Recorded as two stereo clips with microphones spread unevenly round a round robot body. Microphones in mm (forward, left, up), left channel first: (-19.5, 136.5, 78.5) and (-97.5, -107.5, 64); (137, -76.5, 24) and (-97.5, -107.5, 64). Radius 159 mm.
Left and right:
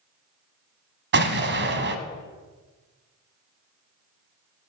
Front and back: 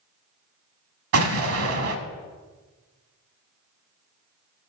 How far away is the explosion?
About 1.1 m.